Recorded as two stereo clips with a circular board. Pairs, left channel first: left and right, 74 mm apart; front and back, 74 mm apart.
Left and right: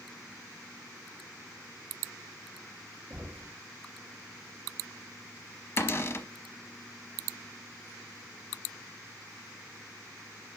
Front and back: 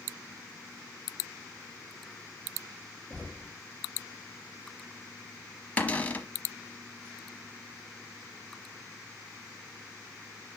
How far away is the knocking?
About 0.9 m.